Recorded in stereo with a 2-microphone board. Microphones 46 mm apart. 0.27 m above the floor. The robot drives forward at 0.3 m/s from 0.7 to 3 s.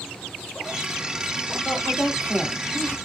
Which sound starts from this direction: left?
A woman speaking, at 1.6 s.